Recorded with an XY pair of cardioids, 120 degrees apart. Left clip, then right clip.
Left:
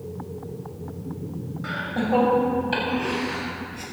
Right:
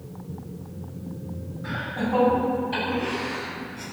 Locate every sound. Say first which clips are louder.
1.6 s laughter: left 2 dB; 50° left, 6.5 m; by 3.8 s 45° left, 9 m